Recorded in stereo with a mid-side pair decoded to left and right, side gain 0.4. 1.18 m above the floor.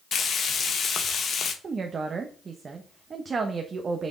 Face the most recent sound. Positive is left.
turn(degrees=-45)